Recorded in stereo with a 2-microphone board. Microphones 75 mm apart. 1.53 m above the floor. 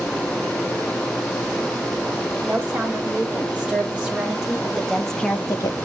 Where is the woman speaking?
20° right (ahead or behind), 4 m; by 5.8 s 65° left (ahead or behind), 0.5 m.